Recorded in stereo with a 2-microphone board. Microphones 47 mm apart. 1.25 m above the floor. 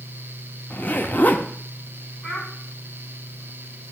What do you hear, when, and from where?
0.7 s a zipper: 45° left (ahead or behind), 1.0 m
2.2 s a child speaking: 20° left (ahead or behind), 5 m